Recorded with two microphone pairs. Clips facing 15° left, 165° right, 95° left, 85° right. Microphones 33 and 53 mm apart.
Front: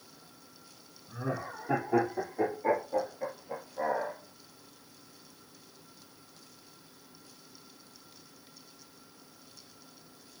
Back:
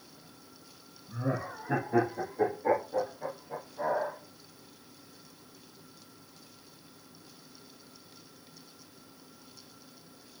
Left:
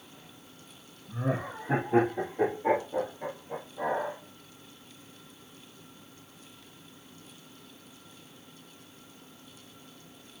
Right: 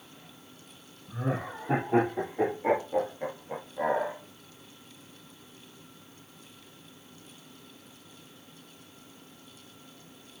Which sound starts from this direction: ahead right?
Laughter, at 1.1 s.